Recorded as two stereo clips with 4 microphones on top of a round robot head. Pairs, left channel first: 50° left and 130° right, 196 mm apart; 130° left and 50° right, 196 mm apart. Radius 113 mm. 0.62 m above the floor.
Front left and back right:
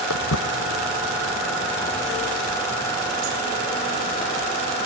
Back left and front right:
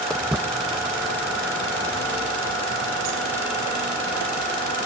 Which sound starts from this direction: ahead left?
Footsteps, at 0.1 s.